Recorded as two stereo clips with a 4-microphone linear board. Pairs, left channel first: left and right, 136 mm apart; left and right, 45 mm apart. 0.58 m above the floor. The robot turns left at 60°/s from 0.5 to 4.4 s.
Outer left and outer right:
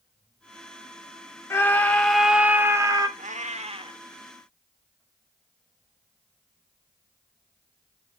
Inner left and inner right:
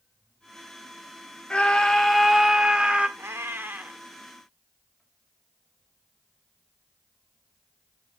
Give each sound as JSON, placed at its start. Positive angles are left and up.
{"t": 1.5, "sound": "a scream", "azimuth_deg": 40, "distance_m": 0.7}
{"t": 3.2, "sound": "a cat meowing", "azimuth_deg": -95, "distance_m": 0.7}